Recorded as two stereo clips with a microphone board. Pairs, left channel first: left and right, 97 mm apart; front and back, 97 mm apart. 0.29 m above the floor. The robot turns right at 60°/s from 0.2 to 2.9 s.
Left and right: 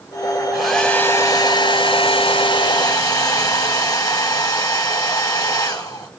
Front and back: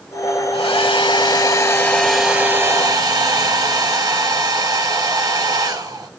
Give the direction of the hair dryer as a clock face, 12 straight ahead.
12 o'clock.